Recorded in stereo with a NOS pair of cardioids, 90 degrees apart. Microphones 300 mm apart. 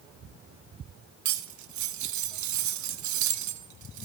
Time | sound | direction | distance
1.2 | cutlery clinking | 65° right | 0.9 m